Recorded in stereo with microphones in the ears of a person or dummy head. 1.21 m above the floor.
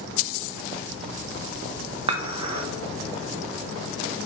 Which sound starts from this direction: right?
Dishes clattering, at 2.1 s.